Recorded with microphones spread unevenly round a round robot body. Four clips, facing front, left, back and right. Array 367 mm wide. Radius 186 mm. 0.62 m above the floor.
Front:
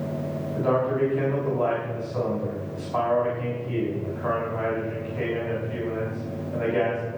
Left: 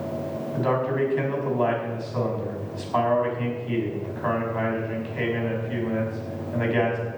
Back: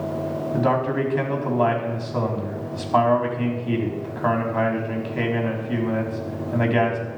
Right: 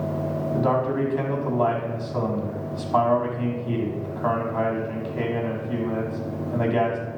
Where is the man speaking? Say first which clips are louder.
Right 1 dB, back 1 dB; 160° right, 5 m.